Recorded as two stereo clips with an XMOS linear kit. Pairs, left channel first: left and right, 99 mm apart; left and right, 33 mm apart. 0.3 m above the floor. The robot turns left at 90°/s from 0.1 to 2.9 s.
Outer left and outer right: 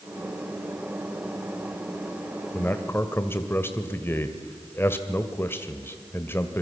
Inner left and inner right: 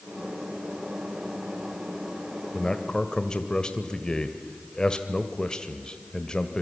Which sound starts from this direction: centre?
A man speaking, at 2.5 s.